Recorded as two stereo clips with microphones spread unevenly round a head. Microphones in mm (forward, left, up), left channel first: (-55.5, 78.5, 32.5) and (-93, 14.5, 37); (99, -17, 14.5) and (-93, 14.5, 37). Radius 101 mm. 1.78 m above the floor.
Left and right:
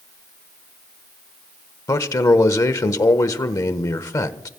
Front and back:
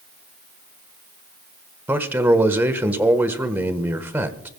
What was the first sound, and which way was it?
A man speaking, 95° left.